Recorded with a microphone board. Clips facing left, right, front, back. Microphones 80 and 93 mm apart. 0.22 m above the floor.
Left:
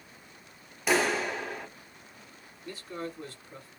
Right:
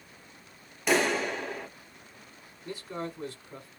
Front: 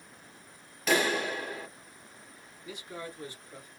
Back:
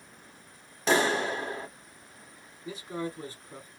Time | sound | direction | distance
0.9 | a clap | 175° left | 1.0 m
2.6 | a man speaking | 140° right | 1.9 m